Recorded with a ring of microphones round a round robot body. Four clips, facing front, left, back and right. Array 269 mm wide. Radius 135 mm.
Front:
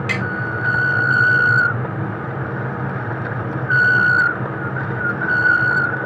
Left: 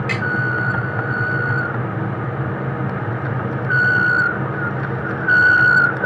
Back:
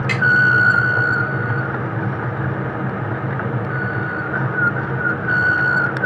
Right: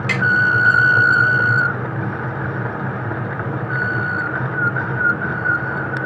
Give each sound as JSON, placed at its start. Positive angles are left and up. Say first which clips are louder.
{"t": 0.1, "sound": "tapping", "louder": "right 6 dB, back 4 dB", "azimuth_deg": -55, "distance_m": 5.0}